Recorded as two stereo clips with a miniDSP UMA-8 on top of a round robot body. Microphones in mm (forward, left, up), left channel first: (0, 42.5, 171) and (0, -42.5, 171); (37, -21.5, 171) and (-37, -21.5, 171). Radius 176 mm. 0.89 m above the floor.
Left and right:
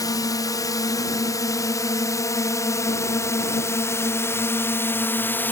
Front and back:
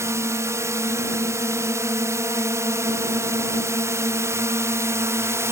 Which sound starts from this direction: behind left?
A drone, at 0.0 s.